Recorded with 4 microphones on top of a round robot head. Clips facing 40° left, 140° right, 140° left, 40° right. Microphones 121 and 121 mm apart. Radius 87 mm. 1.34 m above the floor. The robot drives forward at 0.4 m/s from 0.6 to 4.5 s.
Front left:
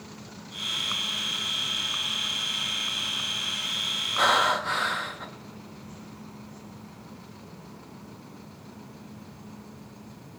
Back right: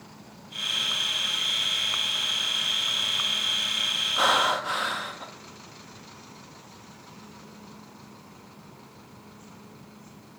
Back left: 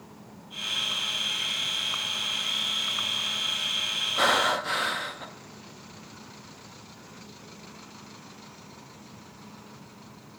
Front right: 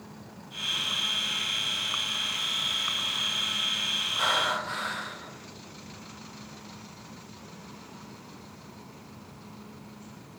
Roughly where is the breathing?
Behind left.